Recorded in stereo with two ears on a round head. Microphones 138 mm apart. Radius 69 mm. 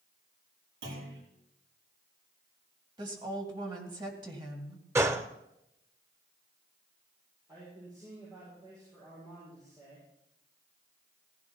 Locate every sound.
0.8 s a clunk: 75° right (ahead or behind), 7 m
3.0 s a woman speaking: 30° right (ahead or behind), 2.5 m
5.0 s a gunshot: 20° right (ahead or behind), 0.7 m
7.5 s a man speaking: 25° right (ahead or behind), 8.5 m